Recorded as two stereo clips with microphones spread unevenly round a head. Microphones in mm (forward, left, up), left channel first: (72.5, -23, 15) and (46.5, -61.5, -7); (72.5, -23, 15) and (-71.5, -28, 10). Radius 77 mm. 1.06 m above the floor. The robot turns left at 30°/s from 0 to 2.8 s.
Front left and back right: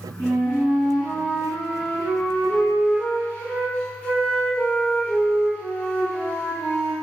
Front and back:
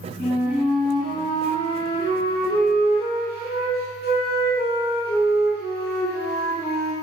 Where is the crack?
I don't hear a crack.